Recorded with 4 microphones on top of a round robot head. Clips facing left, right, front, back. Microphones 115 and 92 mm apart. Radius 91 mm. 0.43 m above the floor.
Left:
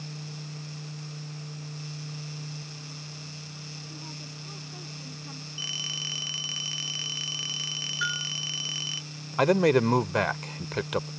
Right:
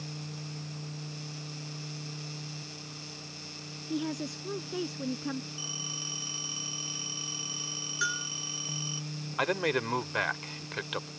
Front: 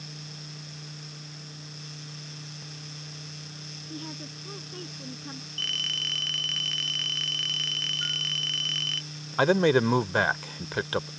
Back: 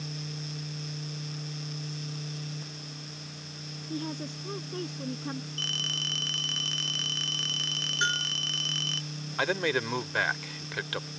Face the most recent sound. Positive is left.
turn(degrees=50)